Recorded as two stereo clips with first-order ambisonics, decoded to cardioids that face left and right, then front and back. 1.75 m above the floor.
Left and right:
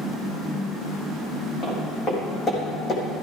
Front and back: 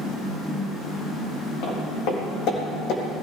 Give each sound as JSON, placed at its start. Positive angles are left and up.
{"t": 1.6, "sound": "footsteps", "azimuth_deg": 25, "distance_m": 4.5}